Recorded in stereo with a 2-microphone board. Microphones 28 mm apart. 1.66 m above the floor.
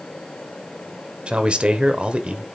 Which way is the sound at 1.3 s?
45° right (ahead or behind).